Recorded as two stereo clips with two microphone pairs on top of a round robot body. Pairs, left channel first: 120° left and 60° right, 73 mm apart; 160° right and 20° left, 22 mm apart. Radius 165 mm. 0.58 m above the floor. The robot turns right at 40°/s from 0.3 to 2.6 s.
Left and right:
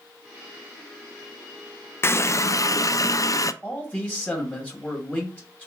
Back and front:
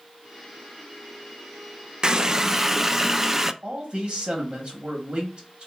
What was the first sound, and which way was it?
A running tap, 75° left.